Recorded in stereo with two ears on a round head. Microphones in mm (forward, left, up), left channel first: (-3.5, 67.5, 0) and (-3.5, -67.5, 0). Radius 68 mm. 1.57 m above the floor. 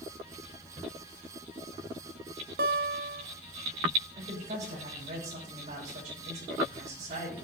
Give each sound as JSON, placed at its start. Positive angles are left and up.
{"t": 2.6, "sound": "a guitar", "side_deg": -70, "distance_m": 1.0}
{"t": 4.2, "sound": "a woman speaking", "side_deg": -50, "distance_m": 5.0}